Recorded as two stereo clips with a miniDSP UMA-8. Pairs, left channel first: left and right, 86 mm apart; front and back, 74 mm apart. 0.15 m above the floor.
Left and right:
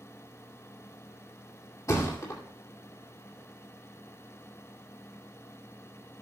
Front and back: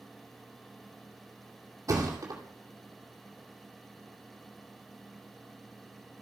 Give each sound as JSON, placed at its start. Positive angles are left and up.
{"t": 1.9, "sound": "a thud", "azimuth_deg": 140, "distance_m": 2.5}